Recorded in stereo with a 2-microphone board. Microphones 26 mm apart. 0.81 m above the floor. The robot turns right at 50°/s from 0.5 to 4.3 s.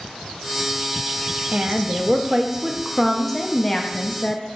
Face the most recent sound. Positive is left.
turn(degrees=55)